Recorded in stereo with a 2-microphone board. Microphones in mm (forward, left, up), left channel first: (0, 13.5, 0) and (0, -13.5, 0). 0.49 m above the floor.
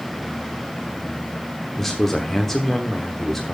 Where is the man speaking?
10° left (ahead or behind), 1.1 m.